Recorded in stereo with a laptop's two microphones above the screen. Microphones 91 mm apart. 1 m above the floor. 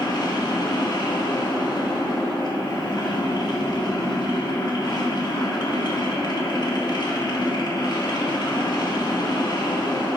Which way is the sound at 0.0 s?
50° left (ahead or behind).